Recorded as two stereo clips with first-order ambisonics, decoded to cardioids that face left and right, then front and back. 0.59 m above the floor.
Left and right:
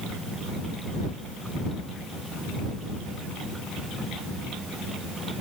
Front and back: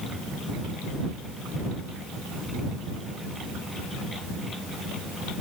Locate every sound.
Only background noise.